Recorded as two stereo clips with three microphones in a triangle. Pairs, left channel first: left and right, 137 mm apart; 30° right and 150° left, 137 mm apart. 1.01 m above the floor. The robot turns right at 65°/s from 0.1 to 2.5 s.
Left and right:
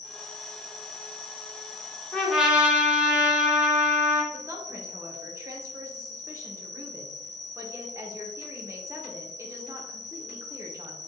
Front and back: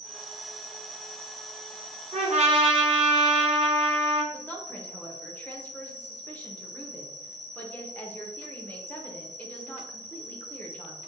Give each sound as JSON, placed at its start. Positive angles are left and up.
{"t": 0.0, "sound": "an insect", "azimuth_deg": -150, "distance_m": 1.3}
{"t": 2.1, "sound": "a trumpet", "azimuth_deg": 170, "distance_m": 1.0}
{"t": 4.3, "sound": "a woman speaking", "azimuth_deg": -85, "distance_m": 0.7}